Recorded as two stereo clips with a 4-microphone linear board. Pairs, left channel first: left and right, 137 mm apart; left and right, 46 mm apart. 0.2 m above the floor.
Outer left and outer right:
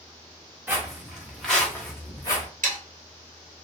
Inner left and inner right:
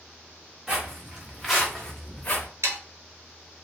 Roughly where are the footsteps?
Centre.